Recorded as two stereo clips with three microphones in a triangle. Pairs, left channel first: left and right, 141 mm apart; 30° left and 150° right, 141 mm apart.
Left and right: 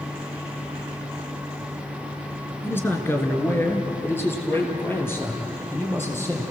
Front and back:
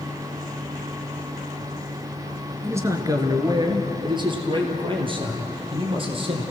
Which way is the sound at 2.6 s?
155° left.